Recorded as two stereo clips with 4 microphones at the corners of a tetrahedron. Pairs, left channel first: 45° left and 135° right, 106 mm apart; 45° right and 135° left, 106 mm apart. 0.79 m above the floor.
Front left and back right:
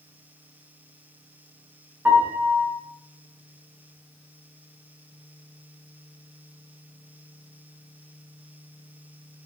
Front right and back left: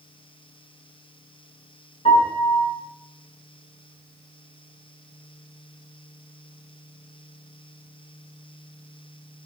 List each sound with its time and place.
2.0 s a piano: 60° right, 5.5 m